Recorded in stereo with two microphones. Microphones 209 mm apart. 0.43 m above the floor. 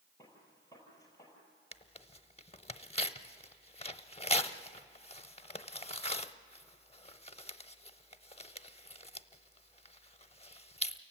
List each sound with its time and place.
0.2 s a gunshot: 15° left (ahead or behind), 5.5 m
1.7 s tearing paper: 30° left (ahead or behind), 0.6 m